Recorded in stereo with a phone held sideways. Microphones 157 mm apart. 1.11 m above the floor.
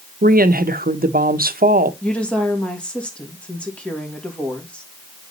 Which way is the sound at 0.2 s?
80° right.